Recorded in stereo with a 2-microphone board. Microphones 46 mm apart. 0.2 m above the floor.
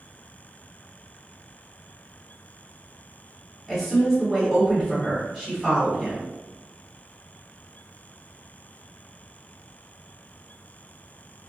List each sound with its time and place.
3.7 s a woman speaking: centre (ahead or behind), 1.4 m